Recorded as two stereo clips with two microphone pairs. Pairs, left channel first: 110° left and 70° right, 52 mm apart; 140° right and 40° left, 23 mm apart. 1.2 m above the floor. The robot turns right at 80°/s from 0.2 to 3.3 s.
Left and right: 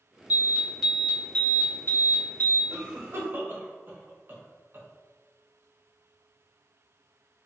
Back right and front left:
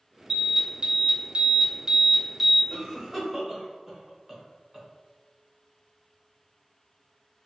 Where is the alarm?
30° right, 0.9 m; by 2.6 s 155° left, 0.9 m.